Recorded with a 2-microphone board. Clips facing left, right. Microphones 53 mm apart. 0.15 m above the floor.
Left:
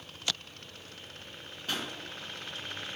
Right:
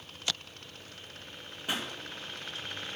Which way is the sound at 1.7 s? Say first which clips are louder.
Right 1 dB; 15° right (ahead or behind).